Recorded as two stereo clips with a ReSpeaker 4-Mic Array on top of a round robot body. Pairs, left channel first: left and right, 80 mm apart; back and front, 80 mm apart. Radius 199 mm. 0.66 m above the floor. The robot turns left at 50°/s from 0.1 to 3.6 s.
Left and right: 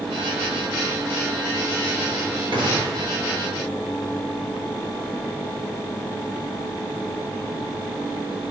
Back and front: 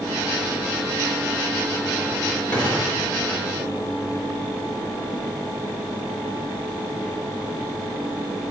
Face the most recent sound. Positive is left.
turn(degrees=-160)